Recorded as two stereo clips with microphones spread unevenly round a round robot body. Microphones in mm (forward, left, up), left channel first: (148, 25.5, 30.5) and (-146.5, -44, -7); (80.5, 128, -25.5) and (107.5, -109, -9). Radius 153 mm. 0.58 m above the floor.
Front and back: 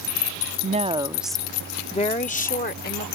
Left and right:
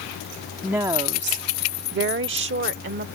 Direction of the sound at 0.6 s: 175° right.